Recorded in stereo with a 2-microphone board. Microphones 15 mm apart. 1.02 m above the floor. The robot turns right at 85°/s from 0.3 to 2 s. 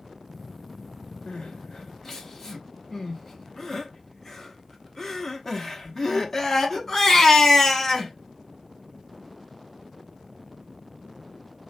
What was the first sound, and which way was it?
Crying, 80° left.